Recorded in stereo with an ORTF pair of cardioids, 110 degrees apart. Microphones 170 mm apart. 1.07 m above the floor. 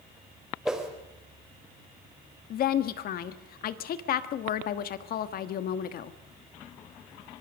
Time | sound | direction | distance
0.7 | a whoosh | 5° right | 4 m
2.5 | a woman speaking | 60° left | 1.5 m